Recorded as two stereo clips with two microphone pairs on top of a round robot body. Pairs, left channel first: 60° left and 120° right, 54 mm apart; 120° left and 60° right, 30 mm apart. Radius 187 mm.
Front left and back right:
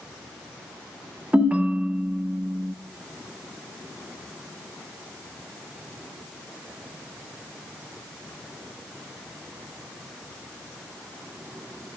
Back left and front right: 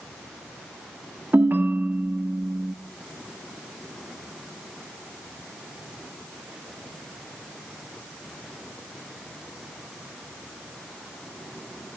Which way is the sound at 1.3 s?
50° right.